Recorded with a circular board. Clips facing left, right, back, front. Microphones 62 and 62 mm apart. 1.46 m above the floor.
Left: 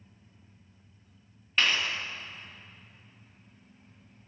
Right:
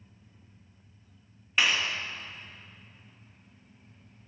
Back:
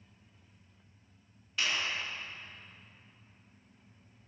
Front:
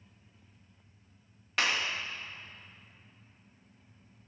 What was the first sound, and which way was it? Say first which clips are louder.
A clap: right 1 dB, front 3 dB; 10° right.